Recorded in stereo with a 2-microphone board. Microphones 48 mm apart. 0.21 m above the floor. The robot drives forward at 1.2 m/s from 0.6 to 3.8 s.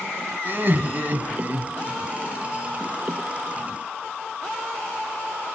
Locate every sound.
0.5 s laughter: 40° right (ahead or behind), 1.3 m; by 2.0 s 30° right (ahead or behind), 1.8 m